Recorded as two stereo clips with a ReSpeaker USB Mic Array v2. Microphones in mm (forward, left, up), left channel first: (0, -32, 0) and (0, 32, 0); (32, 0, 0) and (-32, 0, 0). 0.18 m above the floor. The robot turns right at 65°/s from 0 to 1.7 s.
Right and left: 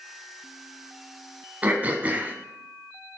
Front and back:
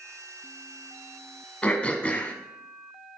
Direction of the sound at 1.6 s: 45° left.